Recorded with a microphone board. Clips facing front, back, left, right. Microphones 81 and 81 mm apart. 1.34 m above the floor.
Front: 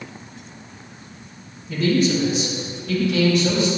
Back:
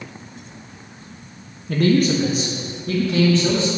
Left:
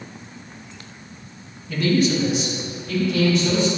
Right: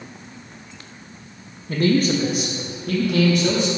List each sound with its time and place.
1.7 s a man speaking: 145° right, 1.2 m; by 3.7 s 120° right, 3 m